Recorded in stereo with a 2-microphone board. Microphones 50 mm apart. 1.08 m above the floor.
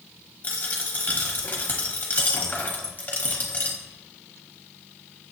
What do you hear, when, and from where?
0.4 s a dropped coin: 30° left (ahead or behind), 0.7 m